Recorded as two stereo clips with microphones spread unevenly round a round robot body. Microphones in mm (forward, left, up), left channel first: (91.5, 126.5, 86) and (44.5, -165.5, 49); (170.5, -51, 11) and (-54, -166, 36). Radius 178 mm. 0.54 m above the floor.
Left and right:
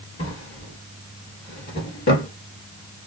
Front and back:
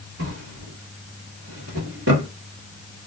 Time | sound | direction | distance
0.2 | a drawer | 145° left | 0.9 m